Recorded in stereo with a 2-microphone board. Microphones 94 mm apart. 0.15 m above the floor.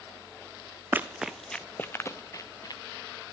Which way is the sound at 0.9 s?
20° right (ahead or behind).